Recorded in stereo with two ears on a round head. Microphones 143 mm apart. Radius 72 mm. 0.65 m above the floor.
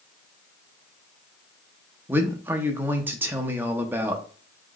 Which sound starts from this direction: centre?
A man speaking, at 2.1 s.